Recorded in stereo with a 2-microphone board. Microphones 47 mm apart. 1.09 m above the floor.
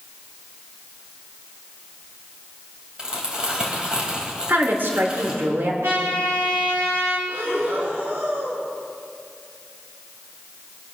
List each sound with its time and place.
3.0 s crumpling: 20° right (ahead or behind), 2.5 m
4.5 s a woman speaking: 55° right (ahead or behind), 2 m
5.8 s a trumpet: 65° right (ahead or behind), 3.5 m
7.3 s breathing: 55° right (ahead or behind), 2 m